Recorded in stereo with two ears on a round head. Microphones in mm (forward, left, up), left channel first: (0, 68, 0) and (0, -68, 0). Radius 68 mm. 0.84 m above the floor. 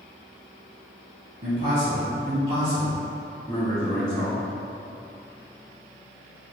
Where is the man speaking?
60° right (ahead or behind), 2.0 m; by 4.4 s 15° right (ahead or behind), 3.5 m.